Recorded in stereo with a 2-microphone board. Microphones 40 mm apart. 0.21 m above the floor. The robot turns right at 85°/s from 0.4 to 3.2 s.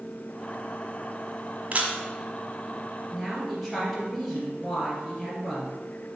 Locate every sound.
1.7 s a camera shutter: 40° right (ahead or behind), 1.3 m; by 2.0 s 30° right (ahead or behind), 1.3 m
3.1 s a woman speaking: 15° left (ahead or behind), 3 m; by 5.8 s 5° left (ahead or behind), 3 m